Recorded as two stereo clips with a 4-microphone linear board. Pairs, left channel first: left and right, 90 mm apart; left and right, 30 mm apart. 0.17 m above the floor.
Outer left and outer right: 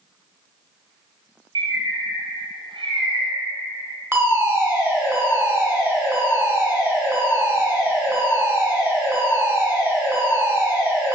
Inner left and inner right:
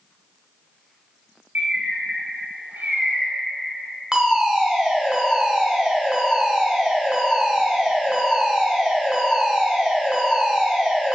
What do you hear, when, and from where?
1.6 s a bird: 80° right, 1.5 m
4.1 s a fire alarm: 25° right (ahead or behind), 2.5 m